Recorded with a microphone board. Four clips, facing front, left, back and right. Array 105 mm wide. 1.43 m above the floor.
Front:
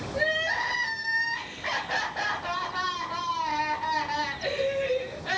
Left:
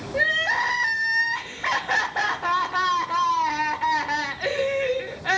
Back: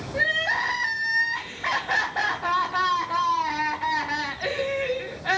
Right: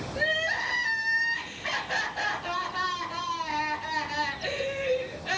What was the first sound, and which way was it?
Crying, 115° left.